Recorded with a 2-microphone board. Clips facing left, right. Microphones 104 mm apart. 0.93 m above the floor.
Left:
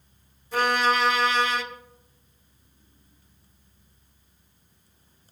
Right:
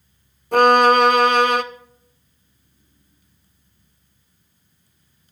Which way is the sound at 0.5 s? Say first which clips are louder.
Right 10 dB; 60° right (ahead or behind).